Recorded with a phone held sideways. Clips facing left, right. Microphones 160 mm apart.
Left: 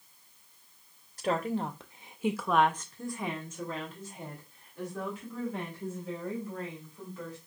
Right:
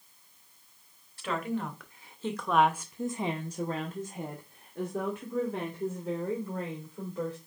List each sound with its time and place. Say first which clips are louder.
1.2 s a woman speaking: left 2 dB; 45° left (ahead or behind), 1.0 m; by 7.4 s 80° right, 2.5 m